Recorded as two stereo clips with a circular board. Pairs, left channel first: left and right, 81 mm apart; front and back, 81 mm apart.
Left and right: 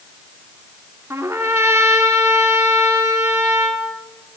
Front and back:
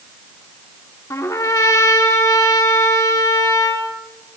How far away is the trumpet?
About 2.5 m.